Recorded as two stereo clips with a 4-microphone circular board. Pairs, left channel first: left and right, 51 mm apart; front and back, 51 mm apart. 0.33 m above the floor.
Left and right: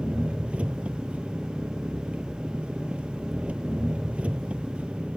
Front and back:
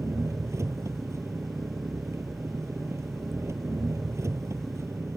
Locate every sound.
0.0 s an engine running: 155° right